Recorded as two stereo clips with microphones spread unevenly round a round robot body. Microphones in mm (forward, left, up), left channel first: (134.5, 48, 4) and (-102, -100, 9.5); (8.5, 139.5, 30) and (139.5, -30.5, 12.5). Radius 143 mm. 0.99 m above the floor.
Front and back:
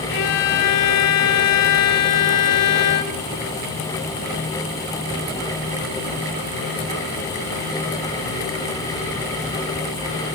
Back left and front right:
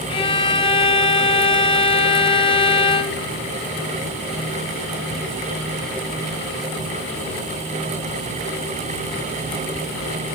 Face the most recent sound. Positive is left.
turn(degrees=60)